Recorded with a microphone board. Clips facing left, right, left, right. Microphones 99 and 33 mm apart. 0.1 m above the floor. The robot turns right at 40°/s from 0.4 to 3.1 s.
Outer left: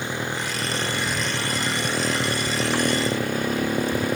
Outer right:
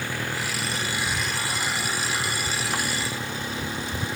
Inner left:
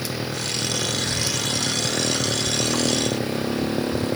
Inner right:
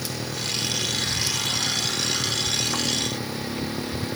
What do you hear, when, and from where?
0.0 s a motorcycle: 20° left; by 4.2 s 130° left